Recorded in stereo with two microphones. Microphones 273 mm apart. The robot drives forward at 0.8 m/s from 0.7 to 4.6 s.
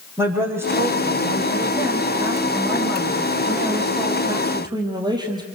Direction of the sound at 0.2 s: 10° right (ahead or behind).